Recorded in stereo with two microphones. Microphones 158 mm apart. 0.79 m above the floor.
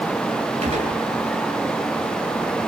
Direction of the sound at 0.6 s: 45° right (ahead or behind).